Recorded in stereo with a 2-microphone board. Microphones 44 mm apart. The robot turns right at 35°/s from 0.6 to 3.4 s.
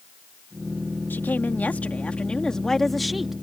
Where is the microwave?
I don't hear a microwave.